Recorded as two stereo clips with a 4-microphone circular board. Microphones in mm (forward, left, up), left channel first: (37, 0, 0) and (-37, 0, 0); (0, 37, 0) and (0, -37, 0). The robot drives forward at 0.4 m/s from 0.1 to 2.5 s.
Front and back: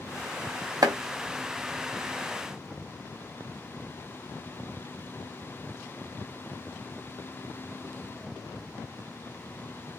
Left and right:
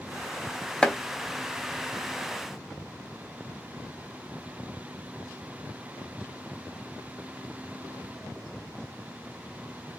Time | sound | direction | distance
0.8 | chopping | 165° left | 0.7 m